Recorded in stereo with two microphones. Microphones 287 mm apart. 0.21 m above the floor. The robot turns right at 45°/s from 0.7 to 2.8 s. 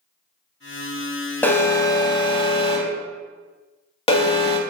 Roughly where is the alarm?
Centre.